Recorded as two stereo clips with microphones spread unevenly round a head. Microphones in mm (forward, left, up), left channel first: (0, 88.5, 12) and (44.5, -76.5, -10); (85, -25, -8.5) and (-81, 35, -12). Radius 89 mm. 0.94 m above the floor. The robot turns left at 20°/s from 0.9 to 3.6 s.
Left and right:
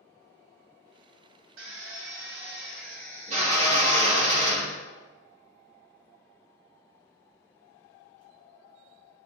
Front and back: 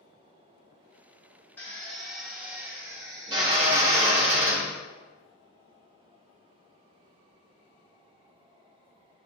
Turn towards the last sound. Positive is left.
turn(degrees=-140)